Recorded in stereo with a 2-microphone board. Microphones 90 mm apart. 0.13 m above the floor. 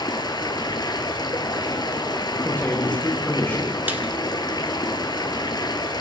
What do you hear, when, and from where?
0.0 s running water: 50° left (ahead or behind), 1.9 m
2.4 s a man speaking: 20° left (ahead or behind), 8 m
3.9 s a snare drum: 20° right (ahead or behind), 1.8 m